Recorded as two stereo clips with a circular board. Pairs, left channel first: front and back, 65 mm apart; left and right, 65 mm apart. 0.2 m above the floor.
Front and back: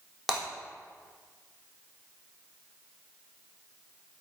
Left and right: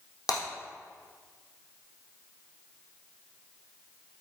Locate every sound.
0.3 s breaking glass: 90° left, 3.5 m